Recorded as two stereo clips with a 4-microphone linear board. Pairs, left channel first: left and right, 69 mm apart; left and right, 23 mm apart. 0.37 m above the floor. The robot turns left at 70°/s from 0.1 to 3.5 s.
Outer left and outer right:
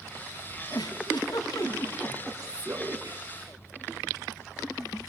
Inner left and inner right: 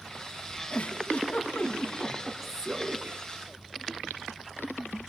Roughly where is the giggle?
Left.